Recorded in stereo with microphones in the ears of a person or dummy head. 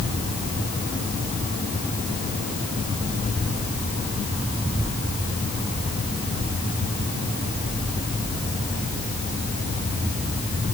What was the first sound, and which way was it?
Only background noise.